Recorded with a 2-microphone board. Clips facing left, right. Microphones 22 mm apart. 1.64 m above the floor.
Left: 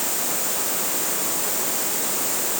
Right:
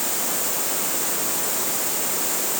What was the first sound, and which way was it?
Only background noise.